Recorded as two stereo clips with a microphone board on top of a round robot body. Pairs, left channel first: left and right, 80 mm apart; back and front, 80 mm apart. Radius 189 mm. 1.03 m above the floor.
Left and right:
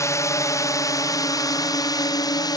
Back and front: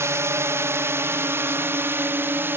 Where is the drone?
50° left; by 2.6 s 60° left.